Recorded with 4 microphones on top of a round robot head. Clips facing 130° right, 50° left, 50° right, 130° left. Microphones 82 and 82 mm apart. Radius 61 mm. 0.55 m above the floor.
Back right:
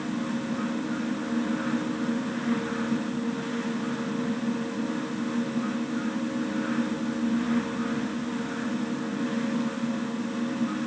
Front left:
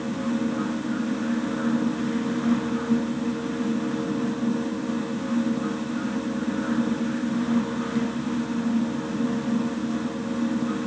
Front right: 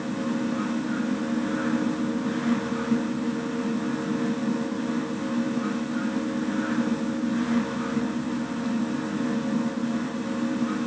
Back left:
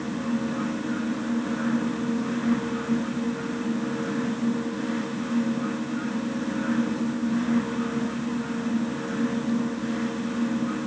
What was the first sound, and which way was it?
Only background noise.